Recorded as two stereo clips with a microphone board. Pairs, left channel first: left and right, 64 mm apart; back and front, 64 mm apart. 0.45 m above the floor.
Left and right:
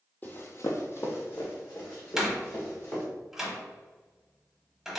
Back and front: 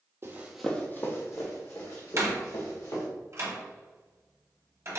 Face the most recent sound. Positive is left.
turn(degrees=-10)